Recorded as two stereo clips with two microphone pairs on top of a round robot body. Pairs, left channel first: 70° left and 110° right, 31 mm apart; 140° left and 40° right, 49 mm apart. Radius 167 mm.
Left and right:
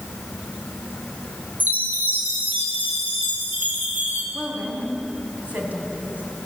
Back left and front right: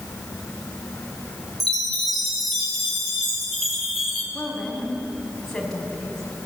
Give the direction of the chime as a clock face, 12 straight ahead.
5 o'clock.